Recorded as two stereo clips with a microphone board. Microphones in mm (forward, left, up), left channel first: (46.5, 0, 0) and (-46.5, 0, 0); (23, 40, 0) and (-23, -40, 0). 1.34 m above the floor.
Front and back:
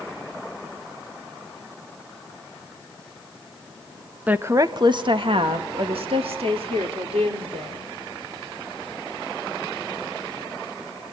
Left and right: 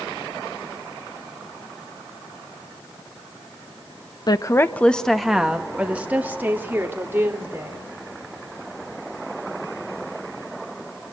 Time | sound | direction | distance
4.3 | a woman speaking | 105° left | 0.9 m